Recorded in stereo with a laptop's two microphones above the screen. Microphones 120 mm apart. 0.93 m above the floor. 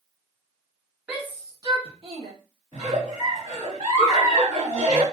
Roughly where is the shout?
Centre.